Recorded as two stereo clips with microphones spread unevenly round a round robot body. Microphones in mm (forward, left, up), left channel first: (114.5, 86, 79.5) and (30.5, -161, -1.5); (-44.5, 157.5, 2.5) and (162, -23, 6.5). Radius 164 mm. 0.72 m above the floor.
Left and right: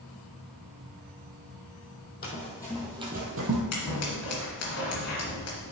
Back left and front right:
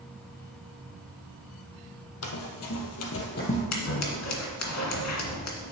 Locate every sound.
2.2 s running footsteps: 115° left, 1.4 m; by 3.6 s 155° right, 1.2 m
3.7 s scissors: 110° left, 1.9 m